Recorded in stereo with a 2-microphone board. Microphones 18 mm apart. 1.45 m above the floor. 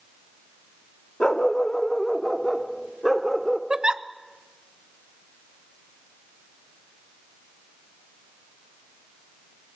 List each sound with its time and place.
1.2 s a dog barking: 45° left (ahead or behind), 1.3 m; by 3.6 s 10° right (ahead or behind), 2 m
3.7 s a giggle: 40° right (ahead or behind), 0.8 m